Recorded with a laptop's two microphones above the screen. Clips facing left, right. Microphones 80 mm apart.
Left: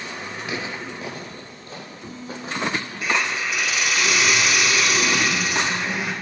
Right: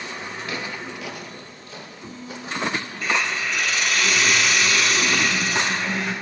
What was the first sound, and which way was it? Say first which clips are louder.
Footsteps: left 2 dB; 15° left (ahead or behind).